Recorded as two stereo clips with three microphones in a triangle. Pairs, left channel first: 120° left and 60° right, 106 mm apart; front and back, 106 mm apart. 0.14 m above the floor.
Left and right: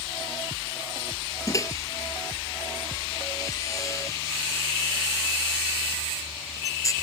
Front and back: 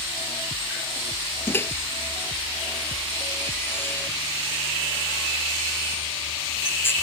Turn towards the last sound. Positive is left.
turn(degrees=65)